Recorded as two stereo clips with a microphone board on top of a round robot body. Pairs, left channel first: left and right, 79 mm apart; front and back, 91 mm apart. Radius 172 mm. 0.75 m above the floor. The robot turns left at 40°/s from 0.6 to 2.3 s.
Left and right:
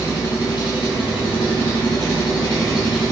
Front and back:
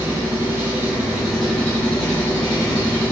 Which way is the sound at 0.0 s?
120° left.